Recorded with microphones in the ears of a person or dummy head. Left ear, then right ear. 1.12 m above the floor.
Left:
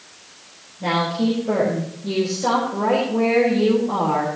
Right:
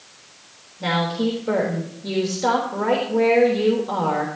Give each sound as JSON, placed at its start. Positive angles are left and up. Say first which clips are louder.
{"t": 0.8, "sound": "a woman speaking", "louder": "left 1 dB", "side_deg": -40, "distance_m": 4.0}